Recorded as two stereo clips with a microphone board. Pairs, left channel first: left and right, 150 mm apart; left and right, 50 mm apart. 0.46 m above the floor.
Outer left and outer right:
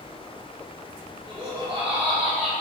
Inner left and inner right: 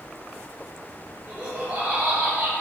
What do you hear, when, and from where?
1.3 s laughter: 35° right (ahead or behind), 1.8 m; by 2.5 s 50° right (ahead or behind), 1.7 m